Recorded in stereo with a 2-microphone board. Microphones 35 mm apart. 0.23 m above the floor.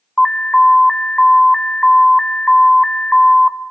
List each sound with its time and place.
0.2 s an alarm: 15° left (ahead or behind), 1.4 m